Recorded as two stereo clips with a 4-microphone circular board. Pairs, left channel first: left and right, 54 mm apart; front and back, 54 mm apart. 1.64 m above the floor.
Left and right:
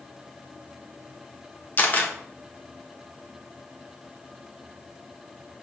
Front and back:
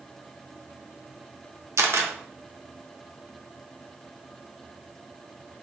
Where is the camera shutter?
145° left, 1.3 m.